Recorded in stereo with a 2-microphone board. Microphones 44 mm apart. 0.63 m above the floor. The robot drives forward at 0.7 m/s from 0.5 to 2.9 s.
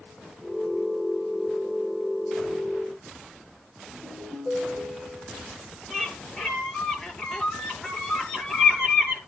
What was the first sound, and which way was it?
A ringtone, 35° left (ahead or behind).